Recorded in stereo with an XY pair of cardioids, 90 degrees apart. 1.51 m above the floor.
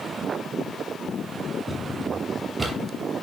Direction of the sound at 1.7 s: 20° right.